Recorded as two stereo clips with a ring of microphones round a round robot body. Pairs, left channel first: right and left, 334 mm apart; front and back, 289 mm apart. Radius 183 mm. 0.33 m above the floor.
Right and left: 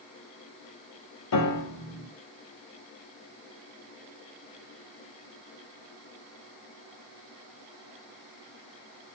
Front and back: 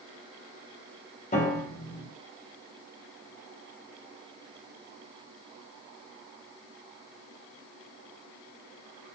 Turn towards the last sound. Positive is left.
turn(degrees=-65)